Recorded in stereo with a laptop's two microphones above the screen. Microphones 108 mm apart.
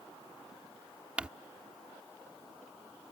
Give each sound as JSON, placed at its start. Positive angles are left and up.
{"t": 1.2, "sound": "crumpling", "side_deg": -10}